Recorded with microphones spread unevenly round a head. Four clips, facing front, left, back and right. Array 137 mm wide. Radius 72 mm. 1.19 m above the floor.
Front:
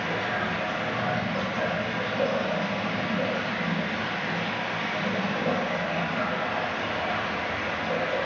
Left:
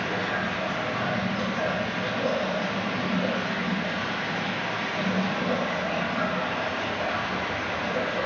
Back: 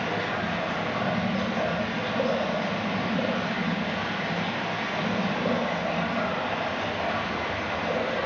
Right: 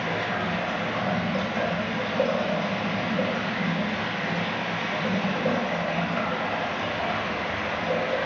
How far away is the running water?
About 0.8 m.